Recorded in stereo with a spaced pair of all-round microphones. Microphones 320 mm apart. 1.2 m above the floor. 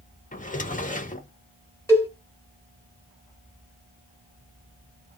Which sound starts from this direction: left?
A drawer, at 0.3 s.